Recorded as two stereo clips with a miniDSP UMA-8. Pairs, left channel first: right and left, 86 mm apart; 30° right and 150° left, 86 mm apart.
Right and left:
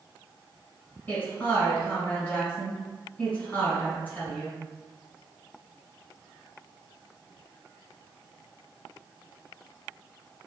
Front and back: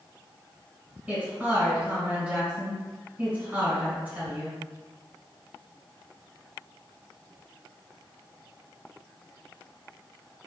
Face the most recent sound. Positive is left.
turn(degrees=-145)